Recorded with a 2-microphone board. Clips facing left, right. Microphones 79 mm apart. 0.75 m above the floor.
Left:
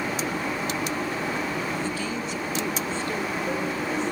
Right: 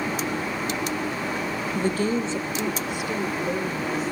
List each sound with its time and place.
1.8 s a woman speaking: 55° right (ahead or behind), 0.7 m; by 4.1 s 5° right (ahead or behind), 3 m